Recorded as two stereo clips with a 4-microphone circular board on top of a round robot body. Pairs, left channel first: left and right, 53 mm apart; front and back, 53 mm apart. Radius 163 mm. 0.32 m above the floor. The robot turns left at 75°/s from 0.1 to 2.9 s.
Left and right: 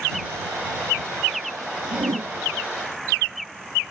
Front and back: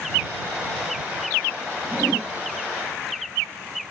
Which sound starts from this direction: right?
A whoosh, at 1.9 s.